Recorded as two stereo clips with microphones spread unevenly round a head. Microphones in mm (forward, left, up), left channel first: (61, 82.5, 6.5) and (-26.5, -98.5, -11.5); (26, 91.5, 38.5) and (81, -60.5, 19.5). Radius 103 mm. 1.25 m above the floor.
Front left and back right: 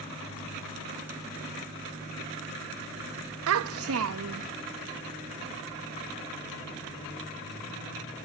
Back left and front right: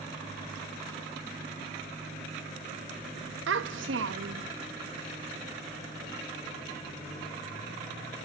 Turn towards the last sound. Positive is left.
turn(degrees=-105)